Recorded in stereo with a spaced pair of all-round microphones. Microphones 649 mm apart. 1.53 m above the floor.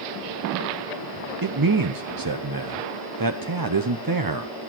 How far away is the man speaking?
About 0.8 m.